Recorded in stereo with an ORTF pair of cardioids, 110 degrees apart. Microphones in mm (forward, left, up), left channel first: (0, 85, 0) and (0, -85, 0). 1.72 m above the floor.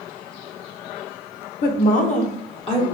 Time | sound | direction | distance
1.6 | a woman speaking | 65° left | 1.0 m